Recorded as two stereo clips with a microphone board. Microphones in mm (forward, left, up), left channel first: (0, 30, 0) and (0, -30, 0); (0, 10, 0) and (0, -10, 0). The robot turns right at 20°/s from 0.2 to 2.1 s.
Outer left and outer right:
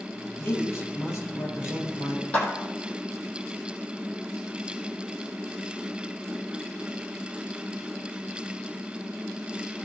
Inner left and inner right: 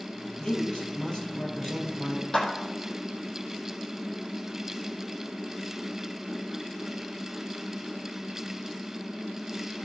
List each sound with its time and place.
0.4 s a man speaking: 45° left, 4.5 m; by 2.2 s 80° left, 4.5 m
2.3 s a clap: 30° left (ahead or behind), 4.5 m